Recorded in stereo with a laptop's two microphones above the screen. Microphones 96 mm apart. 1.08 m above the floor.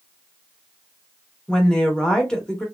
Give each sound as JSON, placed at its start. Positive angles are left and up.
{"t": 1.5, "sound": "a woman speaking", "side_deg": 5, "distance_m": 0.8}